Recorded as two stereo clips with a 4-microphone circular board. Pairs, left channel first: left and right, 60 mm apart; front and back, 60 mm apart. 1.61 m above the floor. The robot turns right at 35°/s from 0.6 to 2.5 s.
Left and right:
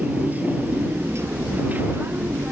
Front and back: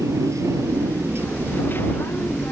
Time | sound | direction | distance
0.0 | a motorcycle | 155° right | ?